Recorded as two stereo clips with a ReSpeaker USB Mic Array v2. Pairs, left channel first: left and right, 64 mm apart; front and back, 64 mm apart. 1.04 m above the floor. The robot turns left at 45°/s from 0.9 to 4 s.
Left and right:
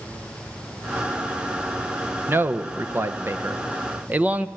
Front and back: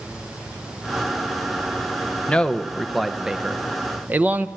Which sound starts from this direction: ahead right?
A man speaking, at 2.3 s.